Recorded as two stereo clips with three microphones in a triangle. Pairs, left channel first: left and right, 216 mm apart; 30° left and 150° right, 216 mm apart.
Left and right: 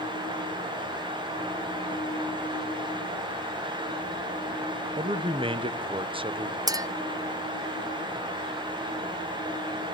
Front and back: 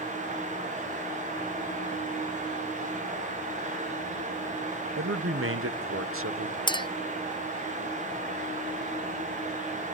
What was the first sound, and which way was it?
A man speaking, 155° right.